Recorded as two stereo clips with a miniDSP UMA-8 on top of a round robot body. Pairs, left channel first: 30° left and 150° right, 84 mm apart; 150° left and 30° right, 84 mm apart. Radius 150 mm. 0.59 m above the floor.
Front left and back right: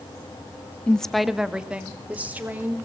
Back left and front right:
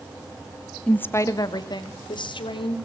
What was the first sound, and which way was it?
A woman speaking, 90° left.